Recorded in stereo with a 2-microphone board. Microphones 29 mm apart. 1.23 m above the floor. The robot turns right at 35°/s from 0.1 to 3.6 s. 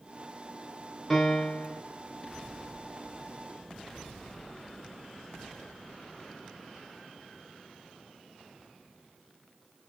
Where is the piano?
10° left (ahead or behind), 2.5 m; by 1.8 s 35° left (ahead or behind), 2.5 m.